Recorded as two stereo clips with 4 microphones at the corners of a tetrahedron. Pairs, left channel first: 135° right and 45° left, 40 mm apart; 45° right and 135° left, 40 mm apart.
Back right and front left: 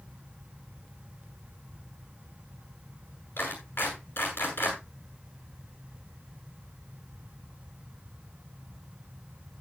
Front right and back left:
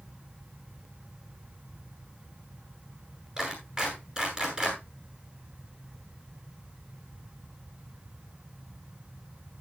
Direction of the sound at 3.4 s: 160° right.